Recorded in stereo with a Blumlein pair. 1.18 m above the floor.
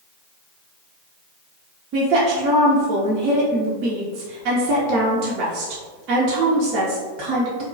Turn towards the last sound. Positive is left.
turn(degrees=-40)